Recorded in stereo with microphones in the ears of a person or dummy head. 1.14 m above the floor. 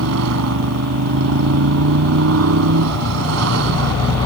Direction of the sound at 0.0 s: 85° right.